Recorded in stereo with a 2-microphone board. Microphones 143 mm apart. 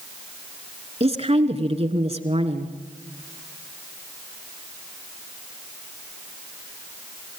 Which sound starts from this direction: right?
A woman speaking, at 1.0 s.